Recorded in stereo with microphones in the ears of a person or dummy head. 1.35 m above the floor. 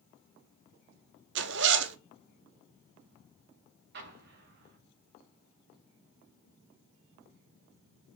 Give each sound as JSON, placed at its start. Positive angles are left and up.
{"t": 1.4, "sound": "a zipper", "side_deg": -55, "distance_m": 0.8}
{"t": 3.9, "sound": "an explosion", "side_deg": -55, "distance_m": 1.9}